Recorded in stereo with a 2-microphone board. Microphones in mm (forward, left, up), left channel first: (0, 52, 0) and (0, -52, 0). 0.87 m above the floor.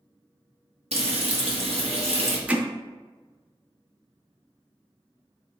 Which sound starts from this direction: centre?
Hammering, at 2.5 s.